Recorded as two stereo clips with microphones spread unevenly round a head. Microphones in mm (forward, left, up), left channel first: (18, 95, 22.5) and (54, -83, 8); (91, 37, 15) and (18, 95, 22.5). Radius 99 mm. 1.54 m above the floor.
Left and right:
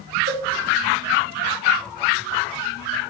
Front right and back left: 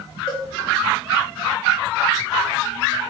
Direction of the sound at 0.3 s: 105° right.